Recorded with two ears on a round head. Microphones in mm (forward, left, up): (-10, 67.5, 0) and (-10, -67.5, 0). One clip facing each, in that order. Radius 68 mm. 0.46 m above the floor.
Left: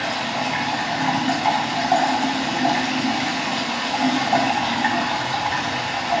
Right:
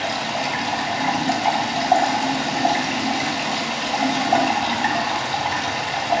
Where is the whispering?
I don't hear whispering.